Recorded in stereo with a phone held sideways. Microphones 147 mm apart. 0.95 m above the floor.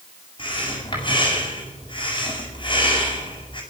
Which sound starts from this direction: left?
Breathing, at 0.4 s.